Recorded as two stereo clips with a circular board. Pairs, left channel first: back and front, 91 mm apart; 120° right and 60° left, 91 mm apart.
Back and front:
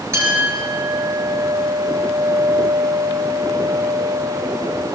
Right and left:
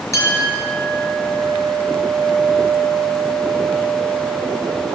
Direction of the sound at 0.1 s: 65° right.